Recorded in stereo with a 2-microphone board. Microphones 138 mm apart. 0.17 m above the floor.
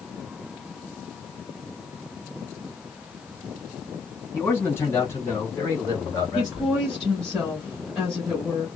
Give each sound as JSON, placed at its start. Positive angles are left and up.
{"t": 4.3, "sound": "a man speaking", "side_deg": 15, "distance_m": 1.8}
{"t": 6.3, "sound": "a woman speaking", "side_deg": 5, "distance_m": 1.2}